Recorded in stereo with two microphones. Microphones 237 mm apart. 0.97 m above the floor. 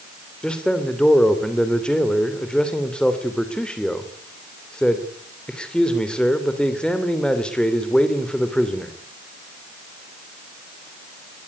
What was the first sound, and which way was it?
A man speaking, 5° left (ahead or behind).